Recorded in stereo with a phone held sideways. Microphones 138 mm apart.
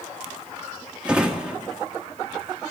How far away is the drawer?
About 1.1 m.